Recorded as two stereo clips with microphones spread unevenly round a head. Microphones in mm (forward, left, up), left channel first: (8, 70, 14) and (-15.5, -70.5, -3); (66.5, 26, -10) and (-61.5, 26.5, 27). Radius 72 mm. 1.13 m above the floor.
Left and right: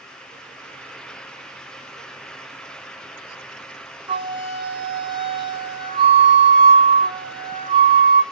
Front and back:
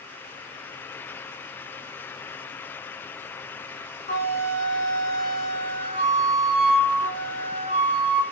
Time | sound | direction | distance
4.1 | a flute | 40° right | 4.5 m